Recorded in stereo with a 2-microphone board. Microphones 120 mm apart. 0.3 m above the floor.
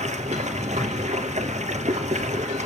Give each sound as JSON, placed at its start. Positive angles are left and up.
{"t": 0.0, "sound": "running water", "side_deg": -75, "distance_m": 1.6}